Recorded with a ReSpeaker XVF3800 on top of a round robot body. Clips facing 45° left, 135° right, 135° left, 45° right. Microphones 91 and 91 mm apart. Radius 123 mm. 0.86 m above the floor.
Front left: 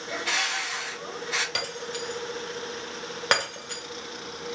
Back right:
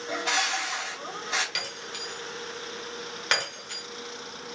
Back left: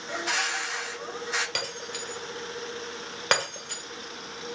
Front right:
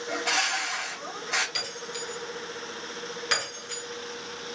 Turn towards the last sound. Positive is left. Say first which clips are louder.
# front left 5 dB, back left 1 dB
turn(degrees=95)